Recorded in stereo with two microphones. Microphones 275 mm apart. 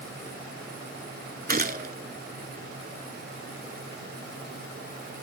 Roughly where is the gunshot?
Right.